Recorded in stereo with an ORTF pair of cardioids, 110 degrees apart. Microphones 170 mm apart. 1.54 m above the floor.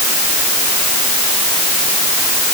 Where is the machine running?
No machine running in this recording.